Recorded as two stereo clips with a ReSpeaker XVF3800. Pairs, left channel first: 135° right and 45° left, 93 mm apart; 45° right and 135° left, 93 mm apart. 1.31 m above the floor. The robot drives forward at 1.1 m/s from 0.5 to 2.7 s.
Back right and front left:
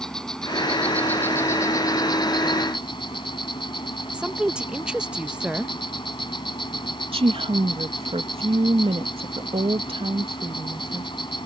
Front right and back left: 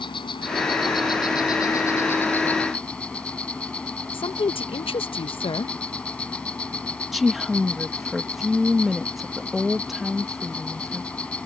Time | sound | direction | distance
0.0 | an insect | 50° right | ?
4.1 | a woman speaking | 35° right | ?
7.1 | a woman speaking | 45° left | ?